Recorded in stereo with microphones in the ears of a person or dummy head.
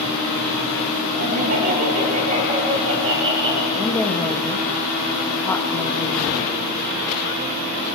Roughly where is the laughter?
Right.